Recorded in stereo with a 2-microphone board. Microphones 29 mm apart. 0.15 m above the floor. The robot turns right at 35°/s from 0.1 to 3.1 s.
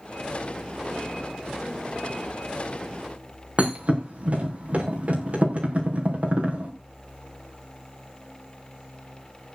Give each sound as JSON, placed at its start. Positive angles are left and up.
{"t": 3.6, "sound": "a thud", "side_deg": -45, "distance_m": 4.0}